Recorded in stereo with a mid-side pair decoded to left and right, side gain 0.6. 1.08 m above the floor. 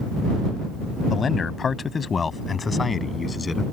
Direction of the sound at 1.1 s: 35° left.